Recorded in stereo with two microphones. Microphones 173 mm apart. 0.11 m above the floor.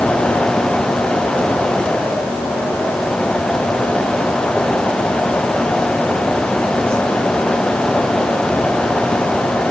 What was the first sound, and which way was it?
Only background noise.